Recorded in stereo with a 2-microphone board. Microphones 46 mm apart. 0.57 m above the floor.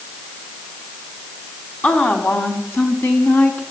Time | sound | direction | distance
1.8 | a woman speaking | 45° left (ahead or behind) | 3.5 m